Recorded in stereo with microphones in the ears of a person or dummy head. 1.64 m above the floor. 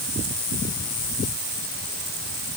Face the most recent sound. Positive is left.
No sound to turn to.